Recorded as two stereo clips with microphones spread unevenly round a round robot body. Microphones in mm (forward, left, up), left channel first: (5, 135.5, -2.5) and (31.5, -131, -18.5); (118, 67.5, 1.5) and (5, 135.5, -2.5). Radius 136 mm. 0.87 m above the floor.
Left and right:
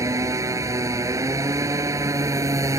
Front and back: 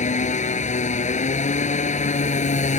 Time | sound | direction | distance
0.0 | a motorcycle | 5° right | ?